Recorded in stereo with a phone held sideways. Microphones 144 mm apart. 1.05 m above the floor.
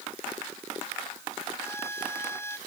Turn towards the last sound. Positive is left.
turn(degrees=15)  # may be behind; listen again after turning